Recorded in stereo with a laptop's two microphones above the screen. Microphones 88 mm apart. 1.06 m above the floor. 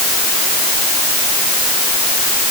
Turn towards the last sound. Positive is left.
No sound to turn to.